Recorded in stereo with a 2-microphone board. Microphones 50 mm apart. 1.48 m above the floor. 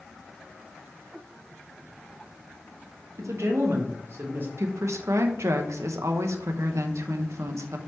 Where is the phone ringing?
I don't hear a phone ringing.